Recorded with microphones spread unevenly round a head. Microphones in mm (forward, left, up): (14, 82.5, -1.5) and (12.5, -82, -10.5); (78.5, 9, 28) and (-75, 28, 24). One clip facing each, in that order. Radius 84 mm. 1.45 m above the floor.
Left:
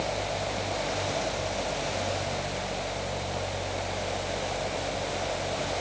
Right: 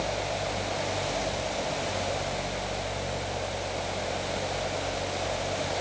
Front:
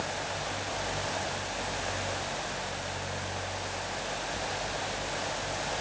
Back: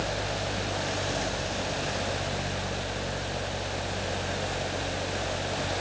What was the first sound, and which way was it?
Only background noise.